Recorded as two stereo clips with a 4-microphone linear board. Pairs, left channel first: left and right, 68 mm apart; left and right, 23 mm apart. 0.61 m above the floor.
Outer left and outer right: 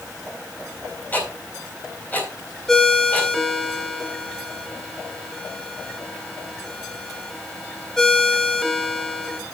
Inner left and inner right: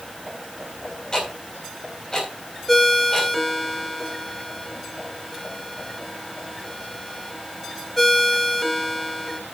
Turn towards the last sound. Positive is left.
turn(degrees=5)  # may be behind; listen again after turning